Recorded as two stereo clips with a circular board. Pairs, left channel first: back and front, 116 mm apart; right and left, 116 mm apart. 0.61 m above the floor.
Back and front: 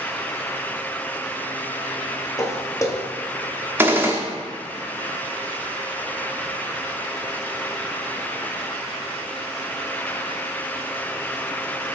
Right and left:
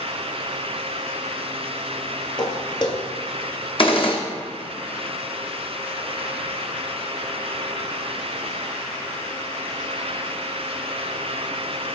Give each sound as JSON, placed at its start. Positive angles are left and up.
{"t": 2.4, "sound": "footsteps", "azimuth_deg": -125, "distance_m": 0.9}
{"t": 3.8, "sound": "a gunshot", "azimuth_deg": -70, "distance_m": 0.8}